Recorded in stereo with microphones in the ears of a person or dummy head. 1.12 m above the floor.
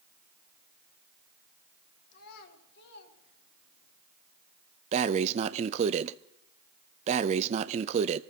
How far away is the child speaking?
About 2 m.